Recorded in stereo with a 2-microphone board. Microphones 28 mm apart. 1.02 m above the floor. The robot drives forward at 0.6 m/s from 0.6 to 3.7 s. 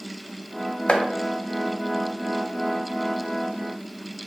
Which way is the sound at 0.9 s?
35° left (ahead or behind).